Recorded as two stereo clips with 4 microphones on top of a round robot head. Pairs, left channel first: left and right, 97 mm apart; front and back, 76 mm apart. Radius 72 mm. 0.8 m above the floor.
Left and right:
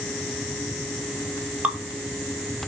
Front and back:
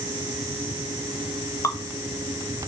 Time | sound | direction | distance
1.6 | dripping | 20° right | 1.1 m